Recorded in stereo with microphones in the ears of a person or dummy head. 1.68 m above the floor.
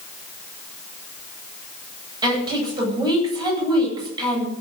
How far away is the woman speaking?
About 10 m.